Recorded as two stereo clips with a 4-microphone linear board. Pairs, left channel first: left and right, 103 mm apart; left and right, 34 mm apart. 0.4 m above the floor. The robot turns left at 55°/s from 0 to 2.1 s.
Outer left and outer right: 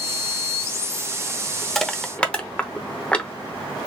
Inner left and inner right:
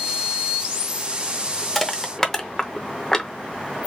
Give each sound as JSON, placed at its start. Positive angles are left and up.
{"t": 1.8, "sound": "crushing", "side_deg": 5, "distance_m": 0.6}